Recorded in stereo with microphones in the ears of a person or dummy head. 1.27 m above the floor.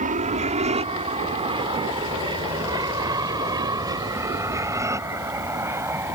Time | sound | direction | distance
0.0 | an aircraft | 35° right (ahead or behind) | ?